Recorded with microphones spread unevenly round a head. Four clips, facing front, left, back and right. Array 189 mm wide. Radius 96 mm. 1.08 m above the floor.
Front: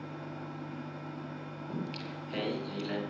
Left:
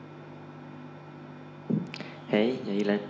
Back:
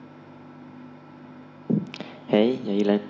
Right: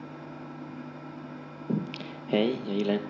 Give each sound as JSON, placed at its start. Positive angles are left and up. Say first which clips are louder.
{"t": 0.0, "sound": "a fan", "louder": "right 4 dB, front 3 dB", "azimuth_deg": -65, "distance_m": 5.0}
{"t": 1.7, "sound": "singing", "louder": "even, back 13 dB", "azimuth_deg": 180, "distance_m": 0.5}